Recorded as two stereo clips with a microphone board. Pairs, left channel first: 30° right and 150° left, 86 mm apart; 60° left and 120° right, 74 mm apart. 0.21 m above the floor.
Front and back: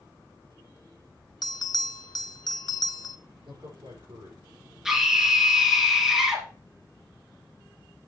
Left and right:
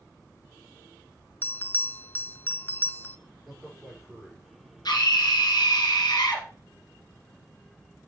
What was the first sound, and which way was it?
A bell, straight ahead.